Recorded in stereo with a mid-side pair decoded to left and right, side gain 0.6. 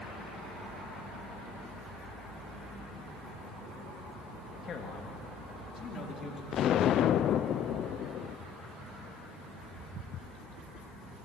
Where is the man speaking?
45° left, 3 m; by 6.4 s 40° left, 5 m.